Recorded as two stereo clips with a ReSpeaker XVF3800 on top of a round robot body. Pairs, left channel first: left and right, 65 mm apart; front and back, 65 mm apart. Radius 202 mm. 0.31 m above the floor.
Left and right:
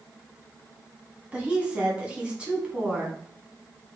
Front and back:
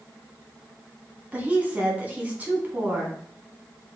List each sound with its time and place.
1.3 s a woman speaking: 145° right, 1.3 m